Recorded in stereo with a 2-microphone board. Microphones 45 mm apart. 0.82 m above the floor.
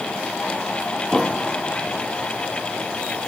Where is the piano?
5° right (ahead or behind).